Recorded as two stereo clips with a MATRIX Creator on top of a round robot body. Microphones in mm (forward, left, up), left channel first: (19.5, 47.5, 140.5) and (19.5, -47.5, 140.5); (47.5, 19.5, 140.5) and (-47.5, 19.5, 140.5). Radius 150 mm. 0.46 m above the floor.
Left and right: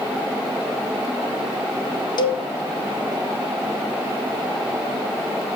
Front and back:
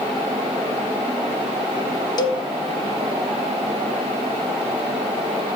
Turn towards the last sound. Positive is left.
turn(degrees=45)